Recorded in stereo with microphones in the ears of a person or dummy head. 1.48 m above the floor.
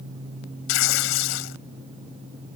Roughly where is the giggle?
No giggle in this recording.